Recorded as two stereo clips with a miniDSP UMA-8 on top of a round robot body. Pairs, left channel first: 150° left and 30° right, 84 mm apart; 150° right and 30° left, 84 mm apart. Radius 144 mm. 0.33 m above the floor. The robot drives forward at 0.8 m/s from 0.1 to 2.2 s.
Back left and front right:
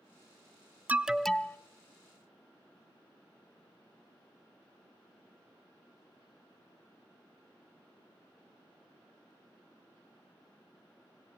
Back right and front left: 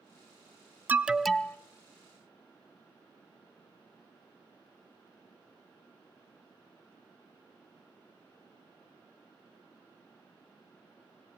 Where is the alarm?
5° left, 0.8 m; by 1.6 s 175° left, 0.8 m.